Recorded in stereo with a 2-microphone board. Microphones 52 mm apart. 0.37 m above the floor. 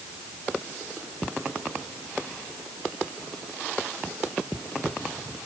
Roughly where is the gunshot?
I don't hear a gunshot.